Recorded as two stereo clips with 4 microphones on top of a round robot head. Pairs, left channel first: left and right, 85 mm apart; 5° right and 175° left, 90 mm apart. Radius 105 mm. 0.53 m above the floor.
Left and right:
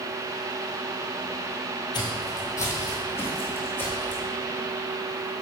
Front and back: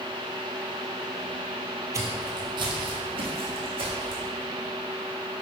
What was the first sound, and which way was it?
Footsteps, 120° left.